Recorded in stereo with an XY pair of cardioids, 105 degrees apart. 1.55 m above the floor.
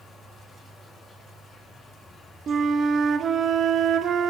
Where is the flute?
45° right, 0.5 m.